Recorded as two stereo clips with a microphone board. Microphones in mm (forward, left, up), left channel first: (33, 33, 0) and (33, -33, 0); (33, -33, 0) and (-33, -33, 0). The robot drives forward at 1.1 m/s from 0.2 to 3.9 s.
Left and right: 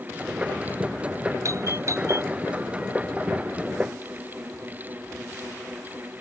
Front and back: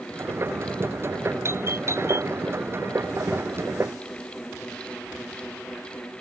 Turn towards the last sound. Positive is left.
turn(degrees=-140)